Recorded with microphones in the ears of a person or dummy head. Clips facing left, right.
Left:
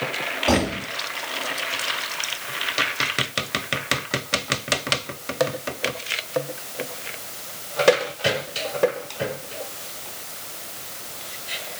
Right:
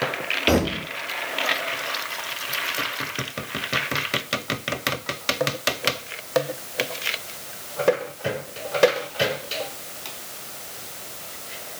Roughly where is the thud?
Right.